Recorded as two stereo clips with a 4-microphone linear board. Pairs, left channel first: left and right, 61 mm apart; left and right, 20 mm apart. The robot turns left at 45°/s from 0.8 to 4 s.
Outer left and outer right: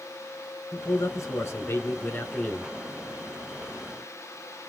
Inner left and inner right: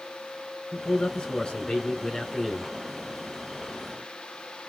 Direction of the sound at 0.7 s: 105° left.